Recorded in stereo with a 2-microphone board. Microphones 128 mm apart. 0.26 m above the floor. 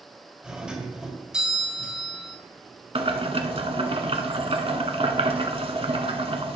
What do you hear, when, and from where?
0.4 s a doorbell: 5° right (ahead or behind), 1.6 m
3.0 s boiling: 50° right (ahead or behind), 1.0 m